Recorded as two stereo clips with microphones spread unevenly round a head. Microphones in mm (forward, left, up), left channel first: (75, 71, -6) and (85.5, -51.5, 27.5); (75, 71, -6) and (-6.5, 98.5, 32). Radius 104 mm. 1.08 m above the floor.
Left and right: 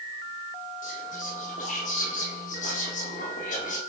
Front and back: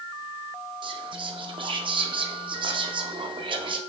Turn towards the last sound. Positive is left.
turn(degrees=135)